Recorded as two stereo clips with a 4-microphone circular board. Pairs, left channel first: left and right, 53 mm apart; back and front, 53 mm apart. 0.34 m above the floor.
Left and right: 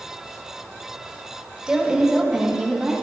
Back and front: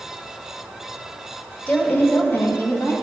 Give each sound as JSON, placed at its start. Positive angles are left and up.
{"t": 1.7, "sound": "a woman speaking", "azimuth_deg": -150, "distance_m": 1.4}